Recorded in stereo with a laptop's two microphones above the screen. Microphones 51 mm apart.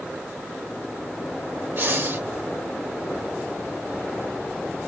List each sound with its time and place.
1.8 s breathing: 50° right (ahead or behind), 0.7 m